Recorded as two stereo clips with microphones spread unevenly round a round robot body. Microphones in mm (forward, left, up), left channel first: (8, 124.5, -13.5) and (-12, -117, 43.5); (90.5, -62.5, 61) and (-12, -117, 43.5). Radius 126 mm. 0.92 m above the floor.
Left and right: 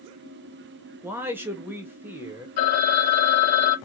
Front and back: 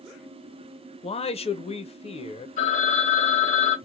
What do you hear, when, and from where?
1.0 s a man speaking: 10° right, 0.8 m
2.6 s a phone ringing: 60° left, 2.5 m